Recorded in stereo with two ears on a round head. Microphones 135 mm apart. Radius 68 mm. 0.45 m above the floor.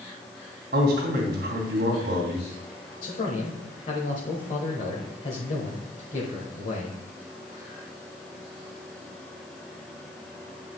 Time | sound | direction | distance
0.7 | a man speaking | 75° right (ahead or behind) | 2.5 m
3.0 | a man speaking | 45° left (ahead or behind) | 1.5 m